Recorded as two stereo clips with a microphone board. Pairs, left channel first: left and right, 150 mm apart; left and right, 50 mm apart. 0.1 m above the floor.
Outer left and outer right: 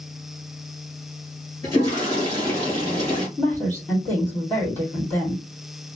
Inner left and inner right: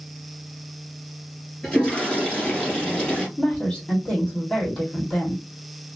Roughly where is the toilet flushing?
Centre.